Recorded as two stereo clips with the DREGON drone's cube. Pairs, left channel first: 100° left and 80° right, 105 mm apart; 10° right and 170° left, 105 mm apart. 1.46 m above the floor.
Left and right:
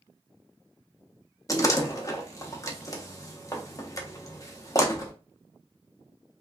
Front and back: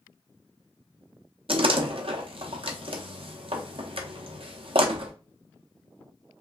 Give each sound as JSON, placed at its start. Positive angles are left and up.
{"t": 1.5, "sound": "a door slam", "azimuth_deg": 155, "distance_m": 0.5}